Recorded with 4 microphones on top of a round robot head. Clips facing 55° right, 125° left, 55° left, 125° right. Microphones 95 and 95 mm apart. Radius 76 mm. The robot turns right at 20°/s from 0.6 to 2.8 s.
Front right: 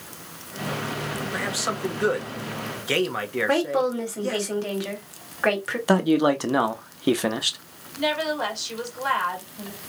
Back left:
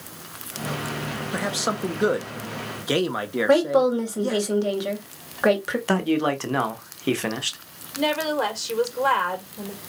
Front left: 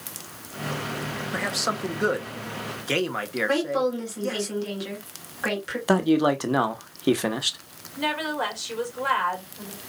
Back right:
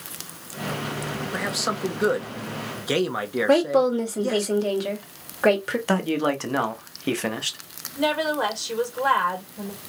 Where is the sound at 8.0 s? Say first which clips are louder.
Back left 2 dB, back right 4 dB; 170° left, 2.5 m.